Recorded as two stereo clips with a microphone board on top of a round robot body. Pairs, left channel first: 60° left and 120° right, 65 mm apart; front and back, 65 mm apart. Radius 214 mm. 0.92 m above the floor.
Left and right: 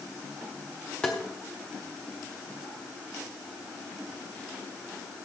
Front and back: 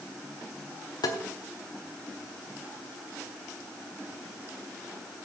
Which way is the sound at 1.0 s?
15° right.